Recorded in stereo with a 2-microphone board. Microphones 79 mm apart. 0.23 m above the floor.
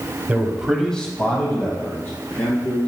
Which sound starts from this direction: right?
A man speaking, at 0.3 s.